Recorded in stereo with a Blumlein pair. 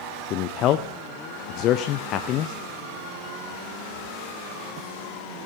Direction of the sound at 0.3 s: 35° left.